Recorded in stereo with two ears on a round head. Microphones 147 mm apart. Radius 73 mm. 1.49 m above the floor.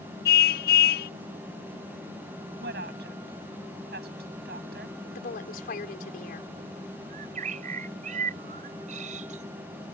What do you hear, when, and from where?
0.2 s a car horn: 65° left (ahead or behind)
2.6 s a woman speaking: 70° right (ahead or behind)
5.2 s a woman speaking: 60° left (ahead or behind)
7.1 s a bird: 50° right (ahead or behind)